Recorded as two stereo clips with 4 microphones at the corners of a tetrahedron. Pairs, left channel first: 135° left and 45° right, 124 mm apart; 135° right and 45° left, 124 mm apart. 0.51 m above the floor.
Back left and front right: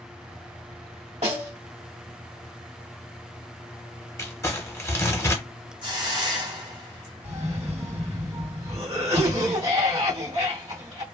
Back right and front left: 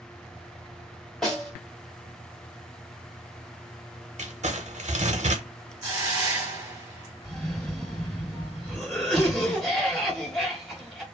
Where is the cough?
50° right, 1.7 m.